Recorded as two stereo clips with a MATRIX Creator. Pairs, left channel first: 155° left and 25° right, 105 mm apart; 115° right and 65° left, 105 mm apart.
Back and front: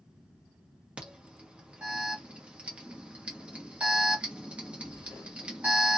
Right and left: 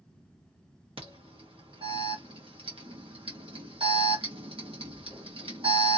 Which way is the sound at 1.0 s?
55° left.